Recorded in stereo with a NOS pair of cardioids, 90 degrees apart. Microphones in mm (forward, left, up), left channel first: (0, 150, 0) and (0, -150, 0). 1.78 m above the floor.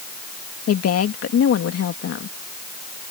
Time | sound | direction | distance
0.7 | a woman speaking | 55° left | ?